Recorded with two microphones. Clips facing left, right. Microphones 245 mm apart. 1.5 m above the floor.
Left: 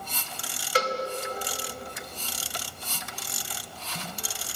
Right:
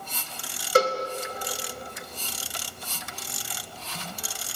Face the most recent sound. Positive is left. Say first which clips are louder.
# right 6 dB
turn(degrees=-45)  # may be behind; listen again after turning